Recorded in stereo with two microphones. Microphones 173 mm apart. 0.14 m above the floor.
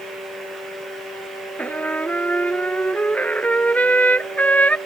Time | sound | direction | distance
1.6 | a trumpet | 10° left (ahead or behind) | ?